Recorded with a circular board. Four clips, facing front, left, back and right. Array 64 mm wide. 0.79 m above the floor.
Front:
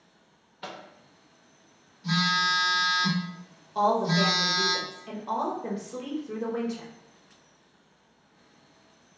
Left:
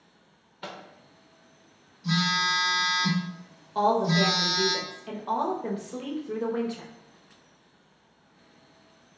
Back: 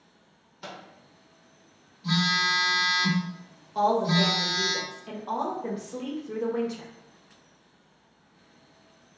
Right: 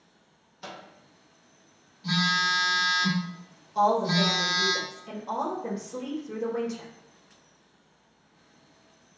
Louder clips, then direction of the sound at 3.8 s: Even, even; 90° left.